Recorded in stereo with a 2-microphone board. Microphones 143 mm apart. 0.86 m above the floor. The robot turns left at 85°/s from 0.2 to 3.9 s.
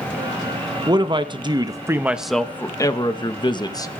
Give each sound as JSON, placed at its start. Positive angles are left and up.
{"t": 0.9, "sound": "a man speaking", "azimuth_deg": -60, "distance_m": 0.8}